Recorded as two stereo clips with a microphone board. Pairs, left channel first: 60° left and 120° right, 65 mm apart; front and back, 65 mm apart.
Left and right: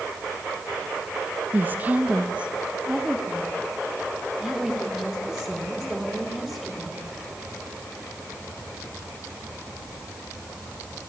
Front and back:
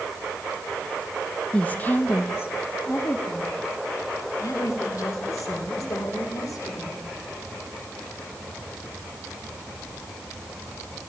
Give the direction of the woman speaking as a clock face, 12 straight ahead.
2 o'clock.